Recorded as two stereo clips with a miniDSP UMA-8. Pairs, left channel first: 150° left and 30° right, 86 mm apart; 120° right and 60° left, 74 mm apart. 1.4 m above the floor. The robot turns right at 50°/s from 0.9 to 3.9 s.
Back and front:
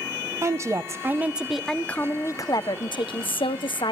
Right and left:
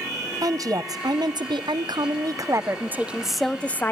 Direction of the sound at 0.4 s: 25° left.